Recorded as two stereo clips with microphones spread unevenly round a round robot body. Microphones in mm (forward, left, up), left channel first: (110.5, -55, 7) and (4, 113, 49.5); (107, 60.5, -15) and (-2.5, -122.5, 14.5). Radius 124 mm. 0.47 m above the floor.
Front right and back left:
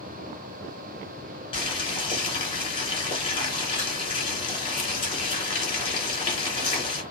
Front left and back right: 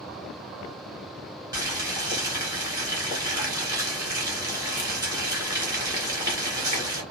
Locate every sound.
1.5 s boiling: 50° right, 1.5 m